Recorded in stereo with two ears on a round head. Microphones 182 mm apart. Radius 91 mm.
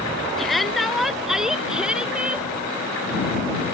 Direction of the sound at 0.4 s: Centre (ahead or behind).